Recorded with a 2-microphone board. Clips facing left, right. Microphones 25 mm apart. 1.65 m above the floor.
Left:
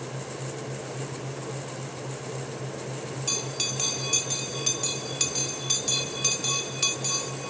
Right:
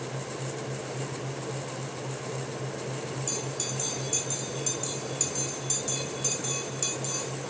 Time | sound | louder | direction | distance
3.3 | a bell | left 4 dB | 50° left (ahead or behind) | 0.7 m